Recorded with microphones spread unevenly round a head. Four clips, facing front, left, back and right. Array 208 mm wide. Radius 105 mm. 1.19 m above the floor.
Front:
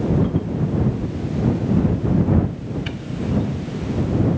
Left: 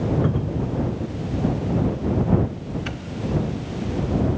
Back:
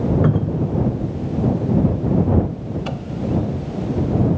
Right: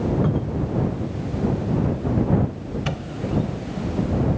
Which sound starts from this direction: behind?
A cupboard door, at 0.2 s.